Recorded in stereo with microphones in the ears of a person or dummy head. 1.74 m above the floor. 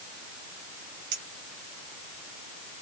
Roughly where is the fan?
I don't hear a fan.